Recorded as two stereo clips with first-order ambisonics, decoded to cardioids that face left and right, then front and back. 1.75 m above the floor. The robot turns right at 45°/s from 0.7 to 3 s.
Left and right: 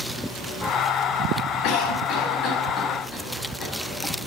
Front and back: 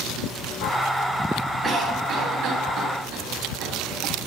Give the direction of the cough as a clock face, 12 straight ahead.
8 o'clock.